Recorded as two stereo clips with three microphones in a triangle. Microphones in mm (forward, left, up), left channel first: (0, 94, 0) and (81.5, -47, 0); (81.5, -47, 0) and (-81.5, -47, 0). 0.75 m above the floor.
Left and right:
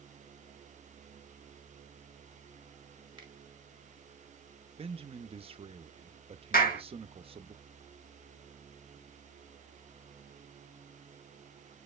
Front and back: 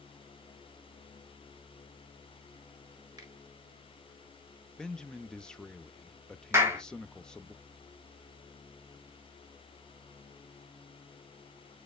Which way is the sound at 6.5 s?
110° left.